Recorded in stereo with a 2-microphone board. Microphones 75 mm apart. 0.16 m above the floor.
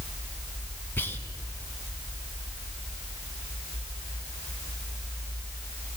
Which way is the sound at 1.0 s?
30° left (ahead or behind).